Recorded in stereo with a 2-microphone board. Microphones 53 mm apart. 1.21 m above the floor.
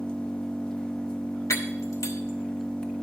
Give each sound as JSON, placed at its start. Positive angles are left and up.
{"t": 0.0, "sound": "an engine running", "side_deg": 15, "distance_m": 0.7}
{"t": 1.5, "sound": "breaking glass", "side_deg": 60, "distance_m": 1.5}